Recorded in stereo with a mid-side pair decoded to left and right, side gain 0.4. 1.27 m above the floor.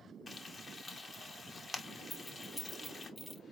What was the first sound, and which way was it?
Frying, 40° left.